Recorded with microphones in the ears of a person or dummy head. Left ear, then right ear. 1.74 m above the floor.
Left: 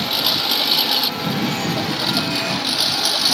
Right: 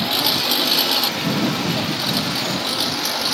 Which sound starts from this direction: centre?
A lawn mower, at 0.0 s.